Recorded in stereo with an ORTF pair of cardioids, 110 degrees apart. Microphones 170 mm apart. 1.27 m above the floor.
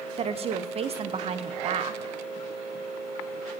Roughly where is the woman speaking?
Ahead right.